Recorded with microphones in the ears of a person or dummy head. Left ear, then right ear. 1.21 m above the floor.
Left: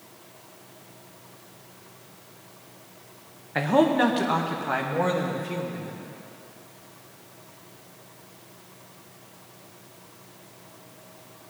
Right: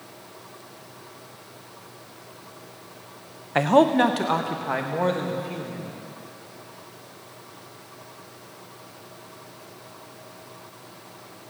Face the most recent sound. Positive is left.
turn(degrees=5)  # may be behind; listen again after turning